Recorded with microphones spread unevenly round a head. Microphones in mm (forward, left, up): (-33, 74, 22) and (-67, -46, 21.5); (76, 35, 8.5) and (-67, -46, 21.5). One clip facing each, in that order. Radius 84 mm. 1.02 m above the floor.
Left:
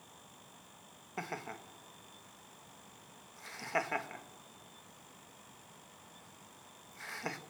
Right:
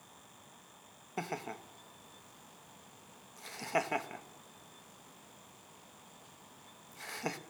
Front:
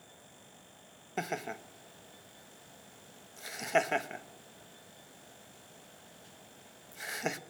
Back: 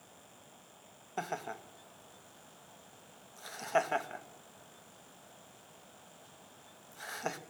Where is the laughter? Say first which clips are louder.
Right 3 dB, front 2 dB; 35° right, 1.3 m.